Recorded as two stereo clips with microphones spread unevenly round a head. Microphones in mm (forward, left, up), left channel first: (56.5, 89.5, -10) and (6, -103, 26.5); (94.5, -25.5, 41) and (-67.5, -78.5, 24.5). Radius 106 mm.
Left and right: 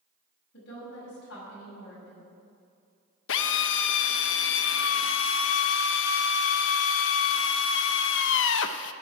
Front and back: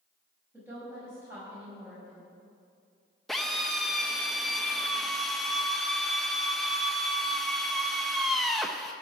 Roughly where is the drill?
Left.